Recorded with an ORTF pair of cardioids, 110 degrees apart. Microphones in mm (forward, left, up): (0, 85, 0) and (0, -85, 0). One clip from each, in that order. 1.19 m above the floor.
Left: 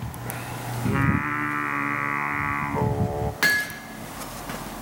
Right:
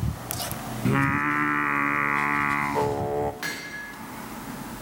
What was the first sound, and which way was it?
Singing, 10° right.